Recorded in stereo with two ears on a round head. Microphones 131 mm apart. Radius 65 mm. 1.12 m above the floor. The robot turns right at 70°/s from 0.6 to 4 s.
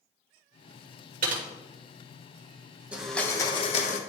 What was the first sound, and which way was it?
Typing on a keyboard, 65° right (ahead or behind).